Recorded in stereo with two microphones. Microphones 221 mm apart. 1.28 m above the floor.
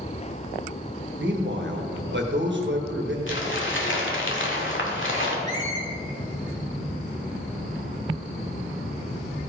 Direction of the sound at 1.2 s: 60° right (ahead or behind).